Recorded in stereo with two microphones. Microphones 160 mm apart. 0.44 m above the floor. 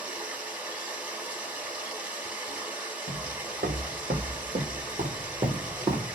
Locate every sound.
0.0 s running water: 10° right (ahead or behind), 0.8 m
3.1 s footsteps: 80° right, 1.7 m; by 6.2 s 20° right (ahead or behind), 1.5 m